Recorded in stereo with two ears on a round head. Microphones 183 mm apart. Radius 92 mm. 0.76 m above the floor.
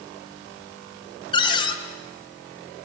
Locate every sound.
1.3 s a cupboard door: 25° left (ahead or behind), 2.5 m